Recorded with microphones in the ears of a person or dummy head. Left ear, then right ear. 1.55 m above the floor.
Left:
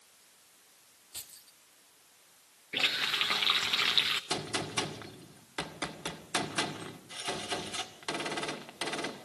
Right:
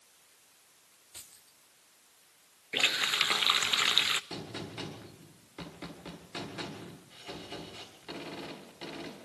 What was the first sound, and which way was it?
Keys jangling, 5° left (ahead or behind).